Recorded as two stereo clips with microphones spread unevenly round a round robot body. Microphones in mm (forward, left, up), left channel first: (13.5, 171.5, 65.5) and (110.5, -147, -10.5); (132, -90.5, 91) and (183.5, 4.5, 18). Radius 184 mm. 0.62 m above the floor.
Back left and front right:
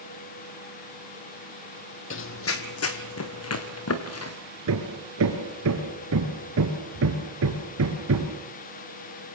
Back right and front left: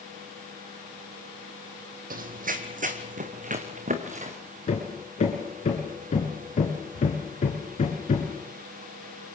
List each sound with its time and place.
2.1 s running footsteps: 70° left, 1.0 m; by 4.4 s 65° left, 3.5 m
4.7 s hammering: 130° right, 3 m